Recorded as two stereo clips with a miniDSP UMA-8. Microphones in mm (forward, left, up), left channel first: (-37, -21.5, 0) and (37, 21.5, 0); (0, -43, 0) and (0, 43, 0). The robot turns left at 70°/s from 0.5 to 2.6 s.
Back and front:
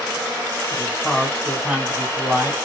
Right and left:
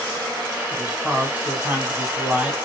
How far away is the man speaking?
About 1.5 m.